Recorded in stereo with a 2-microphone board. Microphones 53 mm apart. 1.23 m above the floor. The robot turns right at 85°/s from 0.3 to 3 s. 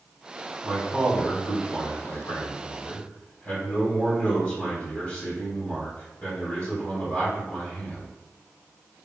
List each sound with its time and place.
0.6 s a man speaking: 45° right, 1.9 m; by 8.1 s 160° left, 1.9 m